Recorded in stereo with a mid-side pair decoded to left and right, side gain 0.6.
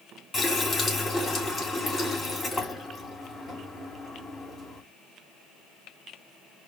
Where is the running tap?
20° left, 2.5 m.